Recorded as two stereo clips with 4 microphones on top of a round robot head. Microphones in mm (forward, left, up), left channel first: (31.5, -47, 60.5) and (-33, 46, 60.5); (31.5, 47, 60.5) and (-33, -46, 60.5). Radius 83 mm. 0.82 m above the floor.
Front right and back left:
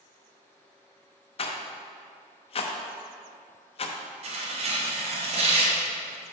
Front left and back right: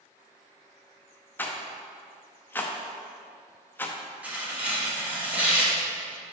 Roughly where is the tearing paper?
Behind left.